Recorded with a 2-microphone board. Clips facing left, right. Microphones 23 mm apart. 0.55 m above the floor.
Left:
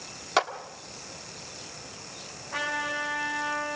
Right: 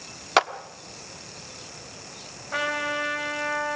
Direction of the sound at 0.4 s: 25° right (ahead or behind).